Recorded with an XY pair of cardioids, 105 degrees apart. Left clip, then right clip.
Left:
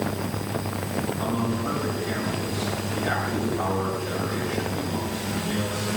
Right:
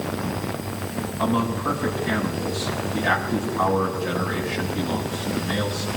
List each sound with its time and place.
1.2 s a man speaking: 70° right, 5 m